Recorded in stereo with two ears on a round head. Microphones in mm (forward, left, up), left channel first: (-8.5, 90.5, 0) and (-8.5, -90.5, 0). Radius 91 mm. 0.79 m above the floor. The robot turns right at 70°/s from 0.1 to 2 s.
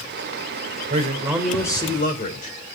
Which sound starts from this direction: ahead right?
A man speaking, at 0.9 s.